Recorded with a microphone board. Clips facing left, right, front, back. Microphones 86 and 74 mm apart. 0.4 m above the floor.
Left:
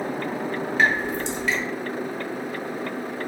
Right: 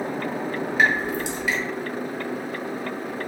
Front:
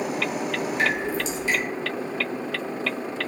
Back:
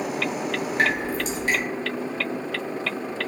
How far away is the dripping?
About 1.2 m.